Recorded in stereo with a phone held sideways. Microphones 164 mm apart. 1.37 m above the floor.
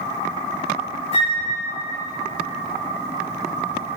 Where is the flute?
40° left (ahead or behind), 2 m.